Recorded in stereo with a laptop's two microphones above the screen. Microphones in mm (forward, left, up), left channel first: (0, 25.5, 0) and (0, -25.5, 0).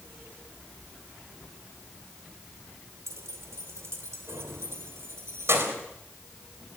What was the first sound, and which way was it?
Keys jangling, 80° right.